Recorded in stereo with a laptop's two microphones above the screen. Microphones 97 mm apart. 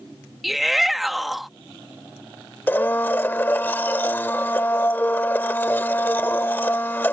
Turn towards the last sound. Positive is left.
turn(degrees=20)  # may be behind; listen again after turning